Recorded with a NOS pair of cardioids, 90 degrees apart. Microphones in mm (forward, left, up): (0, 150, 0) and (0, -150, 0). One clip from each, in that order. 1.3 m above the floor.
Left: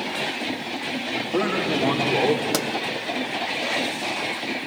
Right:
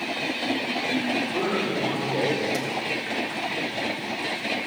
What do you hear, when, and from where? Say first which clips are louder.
1.1 s a man speaking: left 1 dB; 65° left, 2.5 m; by 2.4 s 40° left, 1.5 m
2.5 s a pop: left 4 dB; 70° left, 0.6 m